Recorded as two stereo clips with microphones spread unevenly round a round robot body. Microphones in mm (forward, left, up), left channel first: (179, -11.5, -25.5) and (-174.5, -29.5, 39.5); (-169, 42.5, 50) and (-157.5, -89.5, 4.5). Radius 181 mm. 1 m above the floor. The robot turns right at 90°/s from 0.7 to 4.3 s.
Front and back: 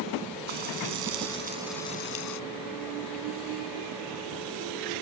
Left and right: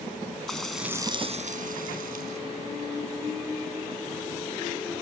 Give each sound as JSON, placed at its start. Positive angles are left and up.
{"t": 0.5, "sound": "frying", "azimuth_deg": 180}